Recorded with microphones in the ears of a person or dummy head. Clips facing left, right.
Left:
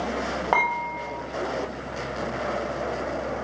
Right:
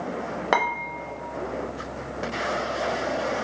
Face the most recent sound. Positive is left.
turn(degrees=-25)  # may be behind; listen again after turning